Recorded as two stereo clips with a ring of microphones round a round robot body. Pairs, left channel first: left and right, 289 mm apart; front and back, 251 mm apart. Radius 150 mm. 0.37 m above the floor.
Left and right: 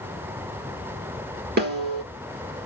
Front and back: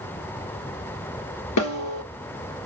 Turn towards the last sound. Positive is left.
turn(degrees=-30)